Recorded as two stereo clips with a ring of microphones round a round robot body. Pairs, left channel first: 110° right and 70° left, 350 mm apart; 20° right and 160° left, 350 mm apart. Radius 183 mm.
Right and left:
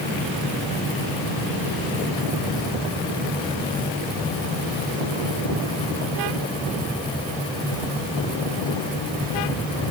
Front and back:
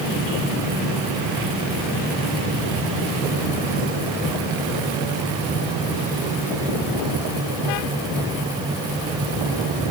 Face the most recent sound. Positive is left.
No sound to turn to.